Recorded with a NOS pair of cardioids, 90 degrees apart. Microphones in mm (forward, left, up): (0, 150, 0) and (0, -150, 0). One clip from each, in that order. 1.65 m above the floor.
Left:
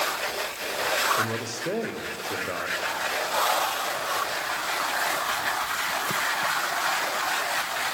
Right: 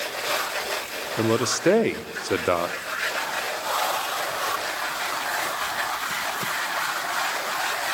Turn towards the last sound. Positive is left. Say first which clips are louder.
# right 5 dB
turn(degrees=-55)